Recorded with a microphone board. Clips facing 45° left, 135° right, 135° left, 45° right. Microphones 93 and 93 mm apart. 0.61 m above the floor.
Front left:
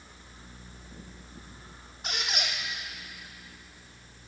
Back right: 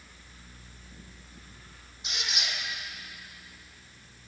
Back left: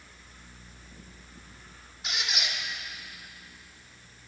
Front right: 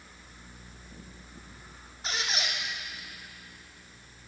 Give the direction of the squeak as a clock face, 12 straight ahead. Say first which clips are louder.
Front left 2 dB, front right 1 dB; 12 o'clock.